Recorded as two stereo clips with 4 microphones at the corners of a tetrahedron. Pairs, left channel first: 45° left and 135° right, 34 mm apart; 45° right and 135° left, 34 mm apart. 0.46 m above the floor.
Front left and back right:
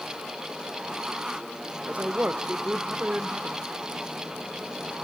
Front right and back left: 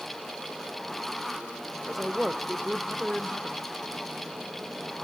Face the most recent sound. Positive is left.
turn(degrees=-140)